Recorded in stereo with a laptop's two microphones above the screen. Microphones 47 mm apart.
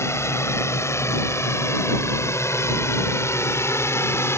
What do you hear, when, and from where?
0.0 s a drone: 70° left (ahead or behind); by 4.4 s 65° left (ahead or behind)